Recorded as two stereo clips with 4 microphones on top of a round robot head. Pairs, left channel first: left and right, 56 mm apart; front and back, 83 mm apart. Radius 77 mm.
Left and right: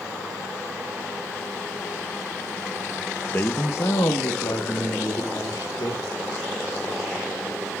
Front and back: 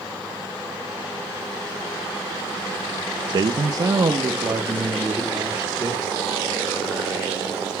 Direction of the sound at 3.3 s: 150° left.